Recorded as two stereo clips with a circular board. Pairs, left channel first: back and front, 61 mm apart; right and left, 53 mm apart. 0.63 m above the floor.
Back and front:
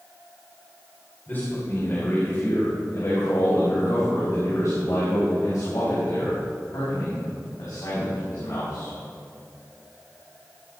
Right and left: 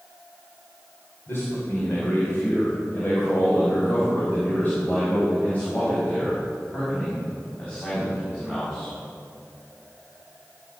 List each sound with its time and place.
1.3 s a man speaking: 125° right, 3 m; by 8.9 s 165° right, 6 m